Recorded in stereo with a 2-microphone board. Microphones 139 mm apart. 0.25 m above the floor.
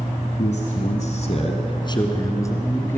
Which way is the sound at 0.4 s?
55° left (ahead or behind).